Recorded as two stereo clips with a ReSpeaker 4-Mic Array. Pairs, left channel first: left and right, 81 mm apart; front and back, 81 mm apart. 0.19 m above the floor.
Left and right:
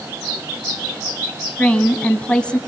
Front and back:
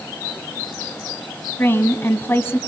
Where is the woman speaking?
25° left, 1.8 m.